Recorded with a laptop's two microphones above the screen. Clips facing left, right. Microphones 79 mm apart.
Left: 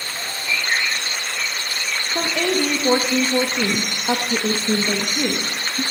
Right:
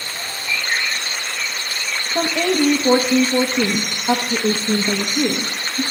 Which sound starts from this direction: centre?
A woman speaking, at 2.1 s.